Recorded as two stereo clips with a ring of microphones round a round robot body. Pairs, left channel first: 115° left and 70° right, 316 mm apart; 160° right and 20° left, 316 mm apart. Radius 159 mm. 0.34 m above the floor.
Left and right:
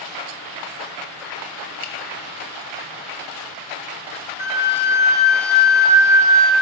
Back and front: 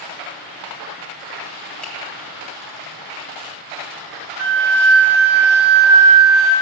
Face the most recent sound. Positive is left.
turn(degrees=15)